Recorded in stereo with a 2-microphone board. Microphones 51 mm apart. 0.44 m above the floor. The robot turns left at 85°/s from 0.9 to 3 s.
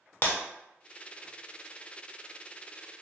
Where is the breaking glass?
40° left (ahead or behind), 0.7 m.